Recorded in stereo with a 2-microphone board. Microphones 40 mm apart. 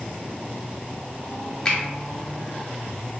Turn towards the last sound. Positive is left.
turn(degrees=20)  # may be behind; listen again after turning